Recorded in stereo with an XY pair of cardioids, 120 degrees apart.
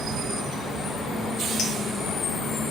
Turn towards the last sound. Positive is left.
turn(degrees=70)